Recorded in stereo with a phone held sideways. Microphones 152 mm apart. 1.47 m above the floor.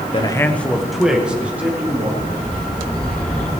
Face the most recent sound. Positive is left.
turn(degrees=5)  # may be behind; listen again after turning